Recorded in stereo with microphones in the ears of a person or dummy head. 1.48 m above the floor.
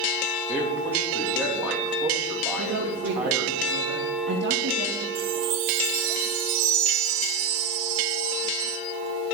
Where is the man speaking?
10° right (ahead or behind), 3 m.